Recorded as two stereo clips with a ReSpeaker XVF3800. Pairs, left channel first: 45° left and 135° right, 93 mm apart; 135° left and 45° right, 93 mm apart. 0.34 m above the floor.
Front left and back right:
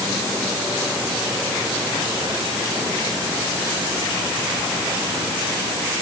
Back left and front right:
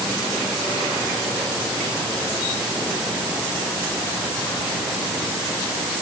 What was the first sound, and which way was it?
Only background noise.